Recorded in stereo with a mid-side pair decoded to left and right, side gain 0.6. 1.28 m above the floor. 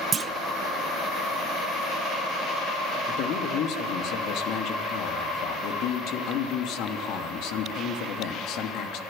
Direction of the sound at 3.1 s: 65° left.